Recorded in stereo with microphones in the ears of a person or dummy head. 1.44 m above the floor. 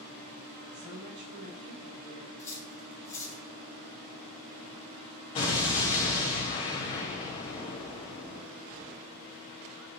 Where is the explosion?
30° left (ahead or behind), 0.9 m.